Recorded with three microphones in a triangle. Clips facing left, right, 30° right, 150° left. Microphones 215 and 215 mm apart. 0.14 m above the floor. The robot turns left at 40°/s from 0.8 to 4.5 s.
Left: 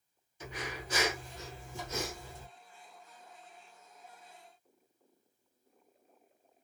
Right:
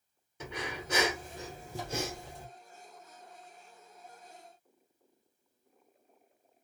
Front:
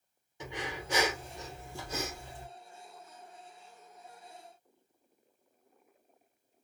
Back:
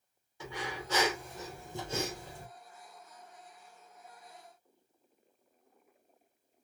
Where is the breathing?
100° right, 1.4 m; by 2.5 s 165° right, 1.4 m.